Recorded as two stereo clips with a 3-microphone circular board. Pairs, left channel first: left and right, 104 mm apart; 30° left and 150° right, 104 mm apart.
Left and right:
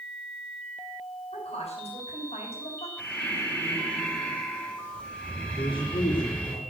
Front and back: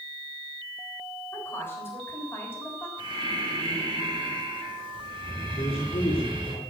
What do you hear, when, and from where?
1.3 s a woman speaking: 95° left, 7 m
3.0 s breathing: 170° left, 3.5 m
5.6 s a man speaking: 50° left, 3.5 m